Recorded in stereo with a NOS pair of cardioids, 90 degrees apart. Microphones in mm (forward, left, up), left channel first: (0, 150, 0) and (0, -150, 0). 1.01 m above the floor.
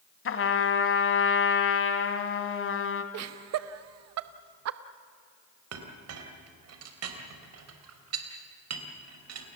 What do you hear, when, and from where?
0.2 s a trumpet: 45° left, 2 m
3.1 s laughter: 60° right, 0.8 m
5.7 s a clink: 55° right, 3.5 m